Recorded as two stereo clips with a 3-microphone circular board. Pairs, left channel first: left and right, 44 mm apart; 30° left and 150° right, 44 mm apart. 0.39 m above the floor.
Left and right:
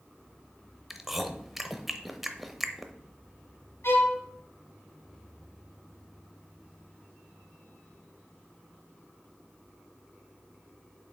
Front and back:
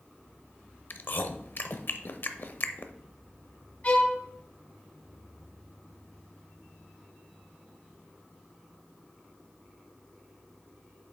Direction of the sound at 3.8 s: 85° left.